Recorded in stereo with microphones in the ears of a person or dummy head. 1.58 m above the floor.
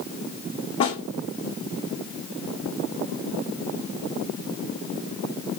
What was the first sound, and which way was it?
A snare drum, 30° left (ahead or behind).